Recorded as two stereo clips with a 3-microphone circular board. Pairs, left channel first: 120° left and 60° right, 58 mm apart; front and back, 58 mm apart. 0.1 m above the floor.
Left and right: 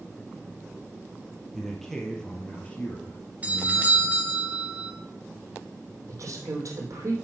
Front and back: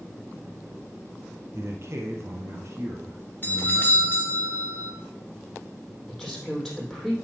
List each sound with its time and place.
1.5 s a man speaking: 155° right, 2.5 m; by 4.2 s 155° left, 2.5 m
3.4 s a doorbell: 20° right, 2.5 m
6.1 s a woman speaking: 85° right, 4 m